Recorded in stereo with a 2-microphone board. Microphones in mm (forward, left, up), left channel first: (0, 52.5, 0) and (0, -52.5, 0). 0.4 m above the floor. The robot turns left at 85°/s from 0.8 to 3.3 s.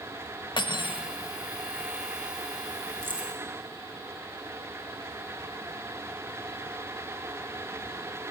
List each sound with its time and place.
0.6 s cutlery clinking: 45° left (ahead or behind), 0.6 m; by 1.0 s 55° left (ahead or behind), 0.6 m
3.0 s keys jangling: 25° right (ahead or behind), 2.0 m; by 3.3 s 5° right (ahead or behind), 2.0 m